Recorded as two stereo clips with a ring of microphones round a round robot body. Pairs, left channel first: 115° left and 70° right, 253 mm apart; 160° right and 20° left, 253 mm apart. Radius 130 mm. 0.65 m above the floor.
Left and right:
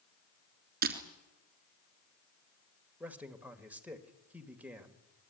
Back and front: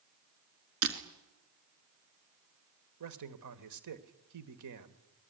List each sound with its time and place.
0.8 s breaking glass: 10° right, 3 m
3.0 s a man speaking: 15° left, 2 m